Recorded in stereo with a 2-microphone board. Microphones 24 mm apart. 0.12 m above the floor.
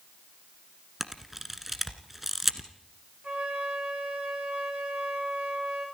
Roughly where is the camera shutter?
Centre.